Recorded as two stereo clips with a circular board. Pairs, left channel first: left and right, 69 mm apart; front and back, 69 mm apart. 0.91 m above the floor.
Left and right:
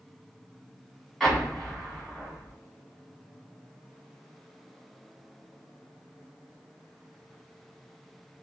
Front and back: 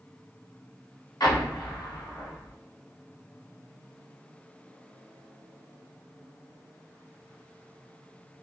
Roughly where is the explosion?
Ahead.